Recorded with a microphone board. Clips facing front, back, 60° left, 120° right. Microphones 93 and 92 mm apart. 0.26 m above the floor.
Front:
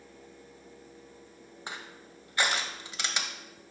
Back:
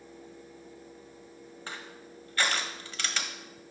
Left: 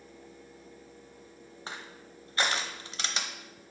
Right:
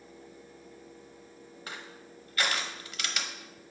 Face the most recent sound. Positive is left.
turn(degrees=50)